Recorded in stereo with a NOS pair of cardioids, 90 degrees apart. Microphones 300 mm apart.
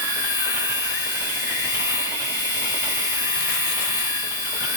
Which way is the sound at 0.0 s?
50° left.